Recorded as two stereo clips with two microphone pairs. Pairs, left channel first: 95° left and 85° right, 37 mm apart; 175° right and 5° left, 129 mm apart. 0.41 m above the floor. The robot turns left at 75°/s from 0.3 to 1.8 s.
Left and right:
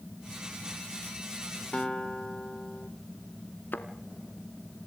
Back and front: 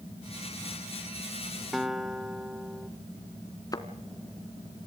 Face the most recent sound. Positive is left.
turn(degrees=120)